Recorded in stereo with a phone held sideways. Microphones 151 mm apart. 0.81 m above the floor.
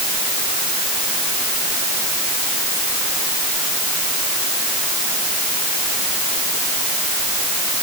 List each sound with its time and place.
Only background noise.